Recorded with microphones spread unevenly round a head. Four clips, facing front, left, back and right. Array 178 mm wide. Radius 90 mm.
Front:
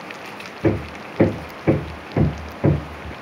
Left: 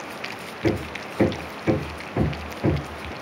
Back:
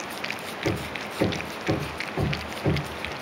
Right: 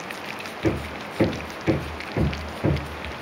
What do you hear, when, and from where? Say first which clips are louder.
0.6 s hammering: left 1 dB, front 8 dB; 5° left, 0.9 m